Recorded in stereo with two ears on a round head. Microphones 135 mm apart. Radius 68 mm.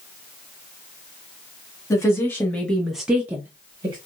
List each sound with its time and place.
1.9 s a woman speaking: 20° left (ahead or behind), 1.2 m; by 4.0 s 20° right (ahead or behind), 1.1 m